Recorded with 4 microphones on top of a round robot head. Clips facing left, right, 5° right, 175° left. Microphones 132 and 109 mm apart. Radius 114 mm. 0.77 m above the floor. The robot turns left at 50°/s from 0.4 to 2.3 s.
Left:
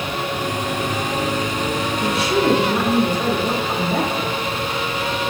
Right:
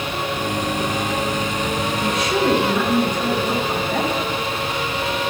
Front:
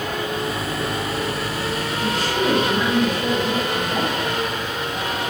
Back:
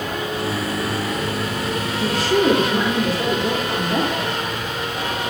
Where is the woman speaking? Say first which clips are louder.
Left 2 dB, back 5 dB; 175° right, 2 m; by 4.3 s 170° left, 2 m.